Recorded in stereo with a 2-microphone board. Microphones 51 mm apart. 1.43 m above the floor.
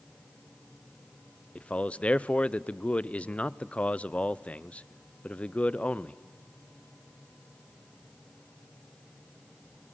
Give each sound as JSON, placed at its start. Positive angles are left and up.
{"t": 1.6, "sound": "a man speaking", "side_deg": 25, "distance_m": 0.6}